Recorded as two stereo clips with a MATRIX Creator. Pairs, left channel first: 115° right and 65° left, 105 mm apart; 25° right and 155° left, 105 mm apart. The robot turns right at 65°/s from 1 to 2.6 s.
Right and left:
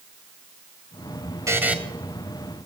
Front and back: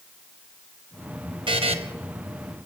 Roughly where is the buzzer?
Behind left.